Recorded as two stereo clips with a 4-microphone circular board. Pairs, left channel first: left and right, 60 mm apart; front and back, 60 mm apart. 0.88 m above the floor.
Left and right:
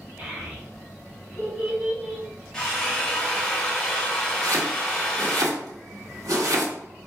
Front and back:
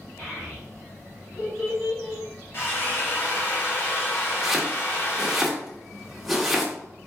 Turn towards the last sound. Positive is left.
turn(degrees=-90)